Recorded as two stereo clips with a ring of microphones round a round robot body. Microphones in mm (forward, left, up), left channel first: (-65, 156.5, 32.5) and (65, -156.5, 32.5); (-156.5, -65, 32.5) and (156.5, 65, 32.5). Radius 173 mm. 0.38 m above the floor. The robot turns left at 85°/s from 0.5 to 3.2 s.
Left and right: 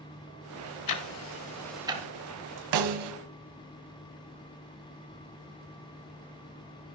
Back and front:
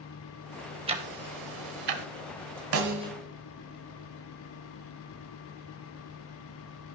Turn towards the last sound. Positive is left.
turn(degrees=-70)